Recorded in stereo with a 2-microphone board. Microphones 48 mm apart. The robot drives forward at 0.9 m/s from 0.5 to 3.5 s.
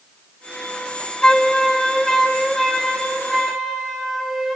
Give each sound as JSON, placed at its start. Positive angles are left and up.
{"t": 1.2, "sound": "a flute", "side_deg": 15, "distance_m": 0.5}